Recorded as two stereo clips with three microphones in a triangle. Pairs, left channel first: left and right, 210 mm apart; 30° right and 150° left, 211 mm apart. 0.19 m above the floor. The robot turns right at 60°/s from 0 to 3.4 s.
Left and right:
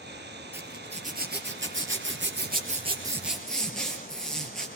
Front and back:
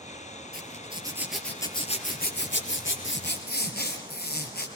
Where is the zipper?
170° right, 5 m; by 4.7 s 5° left, 5 m.